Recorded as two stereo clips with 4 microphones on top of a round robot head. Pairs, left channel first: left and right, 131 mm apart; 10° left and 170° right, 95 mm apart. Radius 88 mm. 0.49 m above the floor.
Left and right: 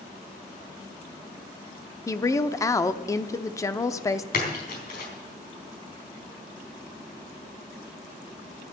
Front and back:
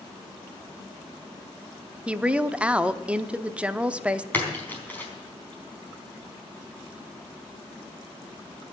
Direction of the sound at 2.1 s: 125° left.